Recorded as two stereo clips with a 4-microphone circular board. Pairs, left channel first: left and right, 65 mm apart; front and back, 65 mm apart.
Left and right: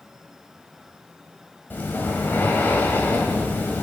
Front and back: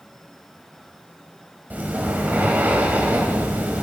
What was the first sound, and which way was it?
Breathing, 130° left.